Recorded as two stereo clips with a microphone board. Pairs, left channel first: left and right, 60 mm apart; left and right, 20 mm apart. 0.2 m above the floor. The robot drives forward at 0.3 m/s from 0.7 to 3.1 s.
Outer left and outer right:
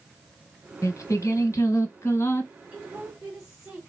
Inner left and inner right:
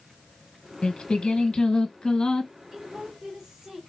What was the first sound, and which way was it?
Singing, 60° left (ahead or behind).